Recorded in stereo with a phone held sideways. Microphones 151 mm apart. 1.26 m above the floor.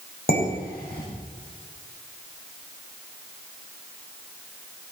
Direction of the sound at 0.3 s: 85° left.